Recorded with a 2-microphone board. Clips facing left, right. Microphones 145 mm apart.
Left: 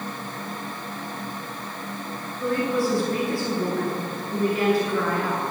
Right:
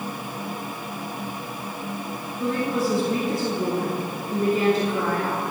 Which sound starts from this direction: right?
A woman speaking, at 2.4 s.